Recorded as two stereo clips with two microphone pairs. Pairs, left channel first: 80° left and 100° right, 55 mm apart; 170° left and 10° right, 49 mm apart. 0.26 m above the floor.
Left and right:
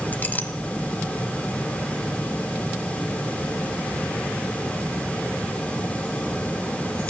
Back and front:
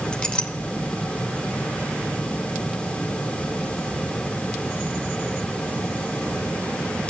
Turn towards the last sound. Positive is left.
turn(degrees=110)